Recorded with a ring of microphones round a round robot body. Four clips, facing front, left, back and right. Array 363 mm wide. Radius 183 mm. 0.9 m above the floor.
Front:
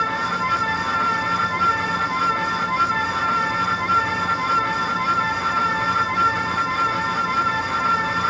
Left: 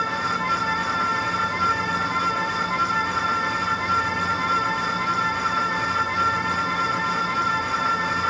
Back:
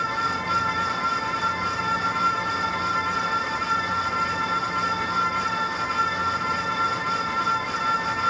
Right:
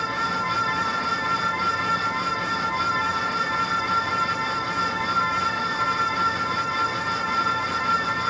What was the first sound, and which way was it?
Only background noise.